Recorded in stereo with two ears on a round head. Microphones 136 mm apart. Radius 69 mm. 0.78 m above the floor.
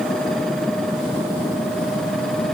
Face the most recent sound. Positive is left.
No sound to turn to.